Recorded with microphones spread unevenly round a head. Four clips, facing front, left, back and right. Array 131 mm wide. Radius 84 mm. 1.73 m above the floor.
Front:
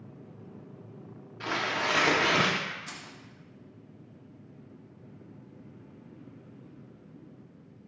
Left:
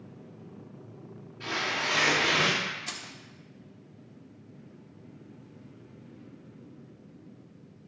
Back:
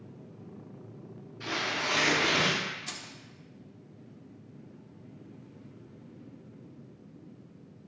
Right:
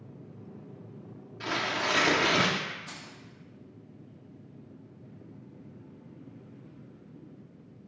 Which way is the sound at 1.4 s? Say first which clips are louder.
Right 1 dB, front 3 dB; 100° right.